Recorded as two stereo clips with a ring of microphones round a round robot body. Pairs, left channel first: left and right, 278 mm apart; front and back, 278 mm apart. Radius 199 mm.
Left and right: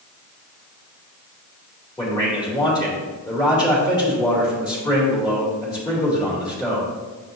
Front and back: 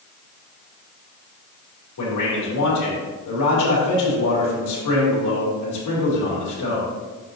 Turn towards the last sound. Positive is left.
turn(degrees=15)